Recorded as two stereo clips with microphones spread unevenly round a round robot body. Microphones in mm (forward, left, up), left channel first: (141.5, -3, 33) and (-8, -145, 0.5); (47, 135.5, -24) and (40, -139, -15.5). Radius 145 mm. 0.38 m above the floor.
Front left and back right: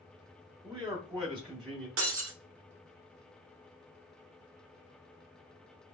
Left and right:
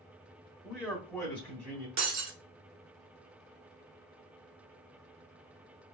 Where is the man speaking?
Straight behind, 1.3 m; by 1.9 s 170° left, 1.8 m.